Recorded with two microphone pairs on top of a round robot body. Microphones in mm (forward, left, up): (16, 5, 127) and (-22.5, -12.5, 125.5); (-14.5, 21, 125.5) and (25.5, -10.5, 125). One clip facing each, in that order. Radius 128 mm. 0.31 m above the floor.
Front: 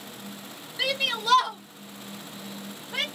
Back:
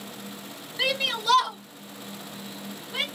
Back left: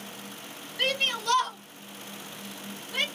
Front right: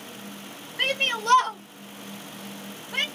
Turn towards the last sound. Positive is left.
turn(degrees=10)